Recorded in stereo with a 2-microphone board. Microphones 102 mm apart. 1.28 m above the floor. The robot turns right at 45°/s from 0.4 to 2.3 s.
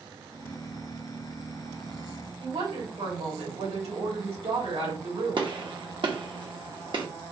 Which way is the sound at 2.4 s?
90° right.